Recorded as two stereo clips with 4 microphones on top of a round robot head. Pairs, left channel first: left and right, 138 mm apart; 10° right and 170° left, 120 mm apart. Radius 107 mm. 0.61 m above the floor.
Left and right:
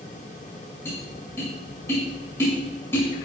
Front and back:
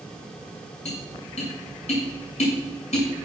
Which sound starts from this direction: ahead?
Tapping, at 0.8 s.